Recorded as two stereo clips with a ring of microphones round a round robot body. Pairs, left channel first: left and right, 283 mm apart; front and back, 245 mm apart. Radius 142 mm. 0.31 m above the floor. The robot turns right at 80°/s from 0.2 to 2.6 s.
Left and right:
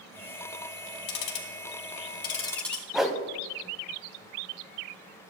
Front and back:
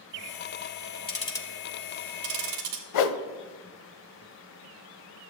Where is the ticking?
55° left, 1.4 m; by 2.8 s 175° left, 1.4 m.